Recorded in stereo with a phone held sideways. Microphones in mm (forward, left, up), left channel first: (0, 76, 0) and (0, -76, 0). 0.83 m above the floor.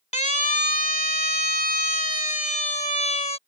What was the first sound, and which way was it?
A siren, 50° left (ahead or behind).